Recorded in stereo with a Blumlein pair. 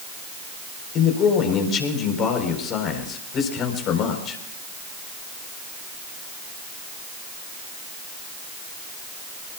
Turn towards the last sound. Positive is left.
turn(degrees=30)